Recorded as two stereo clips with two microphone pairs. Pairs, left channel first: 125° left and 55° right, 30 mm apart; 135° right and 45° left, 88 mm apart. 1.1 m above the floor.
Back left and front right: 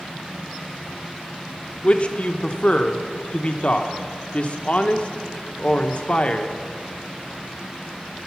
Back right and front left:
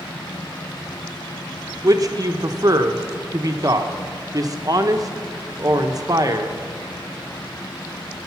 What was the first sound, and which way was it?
A man speaking, 85° left.